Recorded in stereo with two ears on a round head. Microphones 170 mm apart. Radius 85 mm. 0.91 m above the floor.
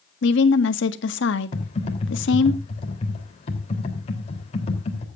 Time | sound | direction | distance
0.2 | a woman speaking | 70° left (ahead or behind) | 1.6 m
1.5 | typing on a keyboard | 35° left (ahead or behind) | 3 m